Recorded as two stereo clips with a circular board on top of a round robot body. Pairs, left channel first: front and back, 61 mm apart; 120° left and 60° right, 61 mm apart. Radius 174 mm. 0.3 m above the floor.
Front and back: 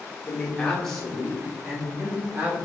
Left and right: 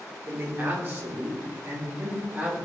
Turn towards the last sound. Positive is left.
turn(degrees=-115)